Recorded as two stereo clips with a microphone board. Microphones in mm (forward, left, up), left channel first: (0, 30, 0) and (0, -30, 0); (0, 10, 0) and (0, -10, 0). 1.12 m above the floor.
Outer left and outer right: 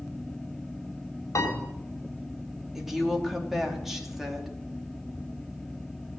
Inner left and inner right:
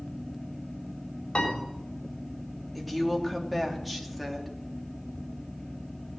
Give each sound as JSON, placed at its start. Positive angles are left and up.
{"t": 1.4, "sound": "a piano", "side_deg": 55, "distance_m": 4.5}
{"t": 2.8, "sound": "a woman speaking", "side_deg": -5, "distance_m": 3.0}